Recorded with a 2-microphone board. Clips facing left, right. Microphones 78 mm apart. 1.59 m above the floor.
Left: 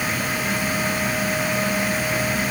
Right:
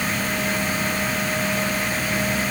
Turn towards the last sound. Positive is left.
No sound to turn to.